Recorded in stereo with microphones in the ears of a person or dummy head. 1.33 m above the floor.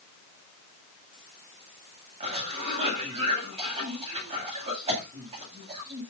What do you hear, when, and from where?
2.2 s a cough: 40° right (ahead or behind), 10 m